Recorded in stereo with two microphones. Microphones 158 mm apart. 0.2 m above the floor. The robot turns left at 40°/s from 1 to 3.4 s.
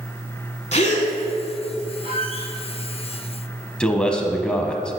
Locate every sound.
0.7 s a gasp: 50° left (ahead or behind), 1.3 m
2.0 s a squeak: 35° right (ahead or behind), 2.5 m; by 2.5 s 55° right (ahead or behind), 2.5 m
3.8 s a man speaking: 5° left (ahead or behind), 1.0 m